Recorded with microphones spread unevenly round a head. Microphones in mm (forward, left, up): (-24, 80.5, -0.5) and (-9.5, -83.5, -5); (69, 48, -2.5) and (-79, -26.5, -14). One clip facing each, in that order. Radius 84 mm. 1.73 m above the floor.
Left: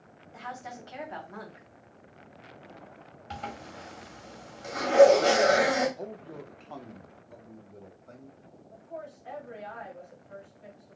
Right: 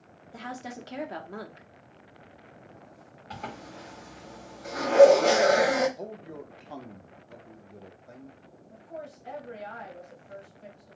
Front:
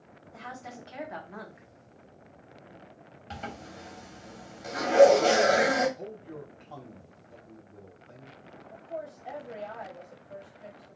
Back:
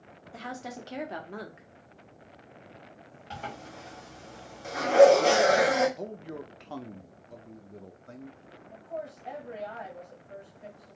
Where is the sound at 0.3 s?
115° right, 0.8 m.